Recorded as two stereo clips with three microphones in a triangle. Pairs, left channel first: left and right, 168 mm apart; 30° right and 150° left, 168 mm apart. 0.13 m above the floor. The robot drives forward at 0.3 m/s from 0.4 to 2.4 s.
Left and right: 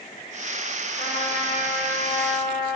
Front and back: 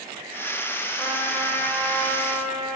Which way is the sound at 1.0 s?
55° left.